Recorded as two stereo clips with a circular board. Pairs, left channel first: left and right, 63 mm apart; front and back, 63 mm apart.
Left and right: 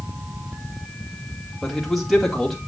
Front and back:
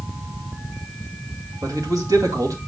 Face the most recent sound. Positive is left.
turn(degrees=175)